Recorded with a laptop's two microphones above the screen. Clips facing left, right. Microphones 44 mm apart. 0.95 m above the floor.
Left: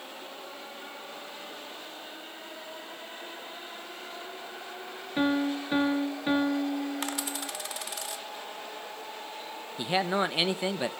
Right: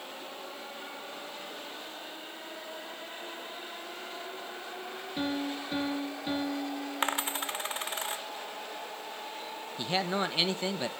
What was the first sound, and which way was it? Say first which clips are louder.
A piano: left 7 dB; 35° left (ahead or behind).